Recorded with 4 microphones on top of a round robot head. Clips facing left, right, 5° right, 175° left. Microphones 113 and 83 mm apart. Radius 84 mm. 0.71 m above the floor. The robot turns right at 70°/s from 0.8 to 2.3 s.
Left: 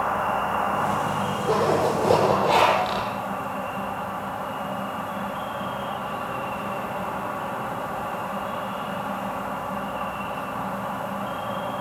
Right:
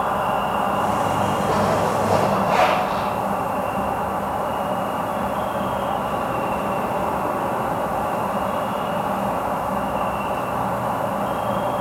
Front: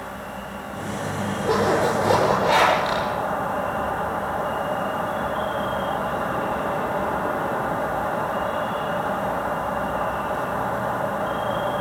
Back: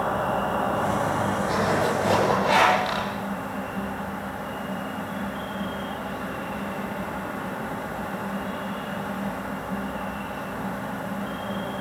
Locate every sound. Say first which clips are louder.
0.0 s an insect: right 3 dB, back 9 dB; 155° right, 0.9 m; by 11.8 s 50° right, 0.9 m
1.4 s a zipper: left 2 dB, front 7 dB; 30° left, 9.5 m; by 3.1 s 90° left, 9.5 m